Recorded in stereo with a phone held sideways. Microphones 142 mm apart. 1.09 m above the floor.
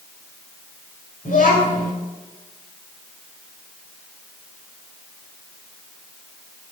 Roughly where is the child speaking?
Left.